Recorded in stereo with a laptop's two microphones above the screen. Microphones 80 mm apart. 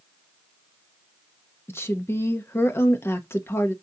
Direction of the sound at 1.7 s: 35° left (ahead or behind).